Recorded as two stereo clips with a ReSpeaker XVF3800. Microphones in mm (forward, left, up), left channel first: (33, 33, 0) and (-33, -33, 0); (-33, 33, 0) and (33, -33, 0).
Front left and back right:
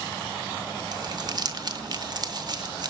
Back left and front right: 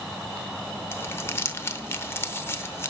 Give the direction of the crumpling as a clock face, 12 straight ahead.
6 o'clock.